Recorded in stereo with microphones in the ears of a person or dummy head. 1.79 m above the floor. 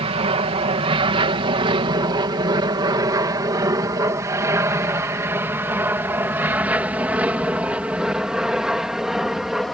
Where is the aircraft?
35° right (ahead or behind); by 9.8 s centre (ahead or behind).